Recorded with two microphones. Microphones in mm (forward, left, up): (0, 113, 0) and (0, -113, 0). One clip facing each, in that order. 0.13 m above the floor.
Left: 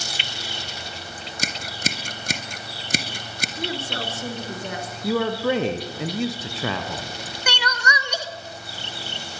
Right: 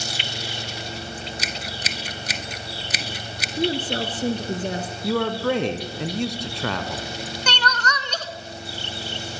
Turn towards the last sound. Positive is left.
turn(degrees=10)  # may be behind; listen again after turning